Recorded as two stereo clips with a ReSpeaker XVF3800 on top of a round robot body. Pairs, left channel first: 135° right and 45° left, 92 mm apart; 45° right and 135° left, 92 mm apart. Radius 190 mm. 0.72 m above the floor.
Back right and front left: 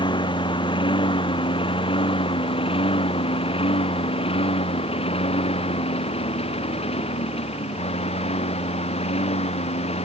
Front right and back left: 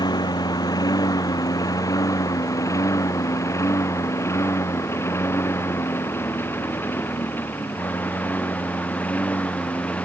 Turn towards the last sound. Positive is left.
turn(degrees=-120)